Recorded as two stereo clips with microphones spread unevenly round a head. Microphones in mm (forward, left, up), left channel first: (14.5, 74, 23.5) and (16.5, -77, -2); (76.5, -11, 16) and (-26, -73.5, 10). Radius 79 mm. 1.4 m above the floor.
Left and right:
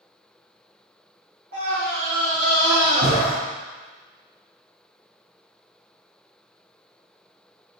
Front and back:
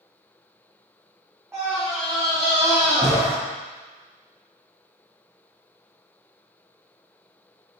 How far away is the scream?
About 3.5 m.